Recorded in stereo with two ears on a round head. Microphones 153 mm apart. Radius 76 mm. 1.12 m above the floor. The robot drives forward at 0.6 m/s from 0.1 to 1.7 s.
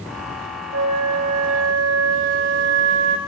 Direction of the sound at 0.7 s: 75° right (ahead or behind).